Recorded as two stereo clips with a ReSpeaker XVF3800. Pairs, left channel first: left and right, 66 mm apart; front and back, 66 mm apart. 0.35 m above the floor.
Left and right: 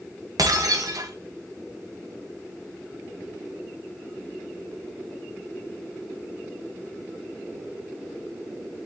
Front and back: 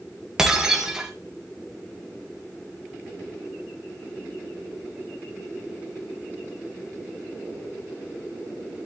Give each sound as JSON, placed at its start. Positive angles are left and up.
{"t": 0.4, "sound": "breaking glass", "azimuth_deg": -100, "distance_m": 2.0}